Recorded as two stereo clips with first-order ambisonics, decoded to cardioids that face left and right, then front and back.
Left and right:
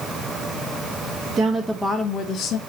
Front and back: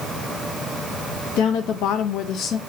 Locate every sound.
1.4 s a woman speaking: 25° right, 0.6 m; by 2.6 s 55° left, 0.6 m